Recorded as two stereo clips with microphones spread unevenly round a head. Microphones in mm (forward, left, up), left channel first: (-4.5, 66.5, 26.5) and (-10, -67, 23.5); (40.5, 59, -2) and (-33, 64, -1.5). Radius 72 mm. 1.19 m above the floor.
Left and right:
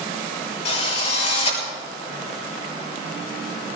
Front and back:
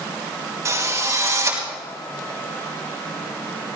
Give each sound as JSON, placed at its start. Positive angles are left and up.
{"t": 0.7, "sound": "a drill", "azimuth_deg": 130, "distance_m": 6.0}